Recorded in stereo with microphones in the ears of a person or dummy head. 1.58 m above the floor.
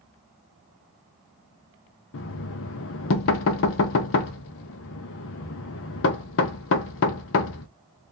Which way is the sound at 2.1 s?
65° left (ahead or behind).